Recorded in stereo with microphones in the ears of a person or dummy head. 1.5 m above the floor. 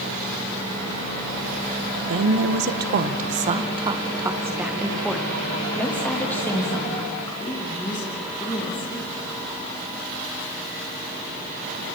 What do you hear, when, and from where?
2.1 s a woman speaking: 65° right (ahead or behind), 1.7 m; by 9.1 s 25° left (ahead or behind), 5 m